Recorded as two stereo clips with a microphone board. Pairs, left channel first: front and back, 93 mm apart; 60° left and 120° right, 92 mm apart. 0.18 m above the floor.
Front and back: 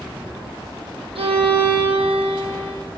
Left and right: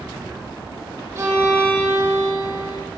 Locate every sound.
1.1 s a violin: 175° left, 6.5 m